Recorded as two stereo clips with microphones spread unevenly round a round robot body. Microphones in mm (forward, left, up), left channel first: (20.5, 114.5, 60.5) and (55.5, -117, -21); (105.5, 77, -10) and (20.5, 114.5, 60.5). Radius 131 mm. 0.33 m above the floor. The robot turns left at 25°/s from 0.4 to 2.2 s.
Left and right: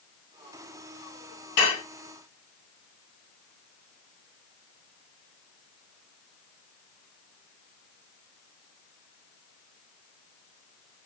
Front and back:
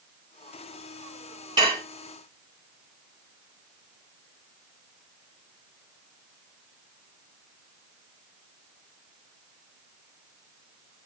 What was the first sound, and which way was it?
Dishes clattering, 95° left.